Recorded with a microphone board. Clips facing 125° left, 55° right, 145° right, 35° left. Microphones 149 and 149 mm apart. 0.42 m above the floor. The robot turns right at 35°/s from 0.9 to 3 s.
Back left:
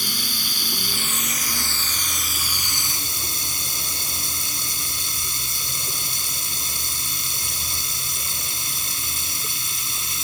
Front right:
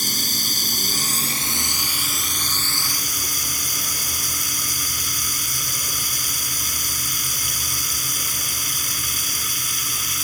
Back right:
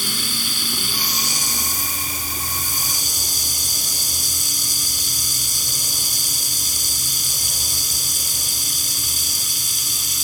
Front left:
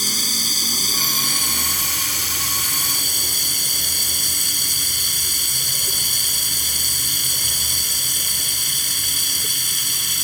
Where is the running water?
10° right; by 10.2 s 60° left.